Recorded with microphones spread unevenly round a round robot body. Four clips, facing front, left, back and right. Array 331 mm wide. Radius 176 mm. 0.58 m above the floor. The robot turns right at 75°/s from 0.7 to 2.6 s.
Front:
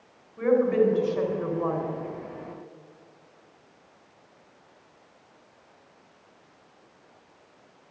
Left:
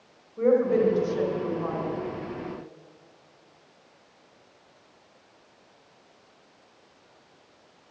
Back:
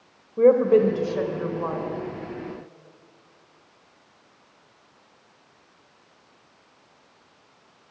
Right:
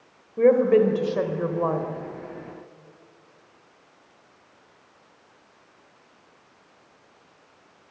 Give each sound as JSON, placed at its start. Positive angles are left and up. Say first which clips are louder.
{"t": 0.4, "sound": "a woman speaking", "louder": "right 4 dB, back 5 dB", "azimuth_deg": -155, "distance_m": 3.0}